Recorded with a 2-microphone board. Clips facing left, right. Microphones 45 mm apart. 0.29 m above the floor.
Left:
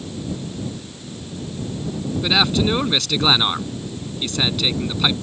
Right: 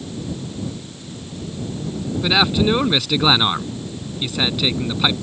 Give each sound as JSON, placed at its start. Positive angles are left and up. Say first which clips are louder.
{"t": 2.2, "sound": "a man speaking", "louder": "right 2 dB", "side_deg": -10}